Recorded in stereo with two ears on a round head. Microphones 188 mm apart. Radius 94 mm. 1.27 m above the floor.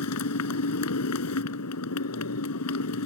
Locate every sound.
0.0 s a motorcycle: 80° left